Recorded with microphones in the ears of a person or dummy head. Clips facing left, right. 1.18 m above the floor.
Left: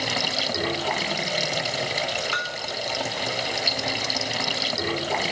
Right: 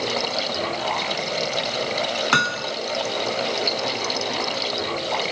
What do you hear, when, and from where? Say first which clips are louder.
0.0 s running water: right 4 dB; 15° left (ahead or behind)
2.3 s hammering: right 7 dB; 75° right (ahead or behind)